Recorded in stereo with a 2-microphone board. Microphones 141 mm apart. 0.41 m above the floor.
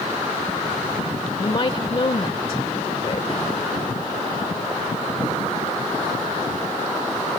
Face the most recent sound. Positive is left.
turn(degrees=40)  # may be behind; listen again after turning